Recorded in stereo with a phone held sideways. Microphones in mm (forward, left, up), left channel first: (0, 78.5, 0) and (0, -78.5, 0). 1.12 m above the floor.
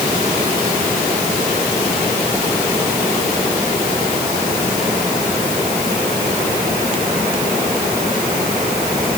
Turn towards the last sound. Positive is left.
No sound to turn to.